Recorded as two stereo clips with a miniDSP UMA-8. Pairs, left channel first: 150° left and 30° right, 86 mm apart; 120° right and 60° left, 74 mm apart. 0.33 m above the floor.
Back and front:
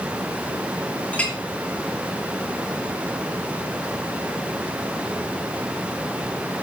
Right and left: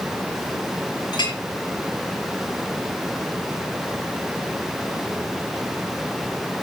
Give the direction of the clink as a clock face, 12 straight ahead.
5 o'clock.